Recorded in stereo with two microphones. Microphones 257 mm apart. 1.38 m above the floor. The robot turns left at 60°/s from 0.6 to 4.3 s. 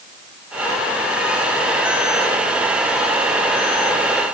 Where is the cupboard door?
I don't hear a cupboard door.